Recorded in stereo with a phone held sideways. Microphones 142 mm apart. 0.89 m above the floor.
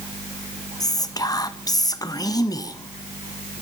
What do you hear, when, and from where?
0.8 s whispering: 25° left (ahead or behind), 0.5 m